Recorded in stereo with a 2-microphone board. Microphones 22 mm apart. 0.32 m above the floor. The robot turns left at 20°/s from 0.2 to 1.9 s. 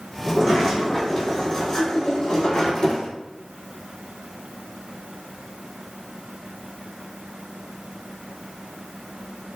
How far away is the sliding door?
About 2 m.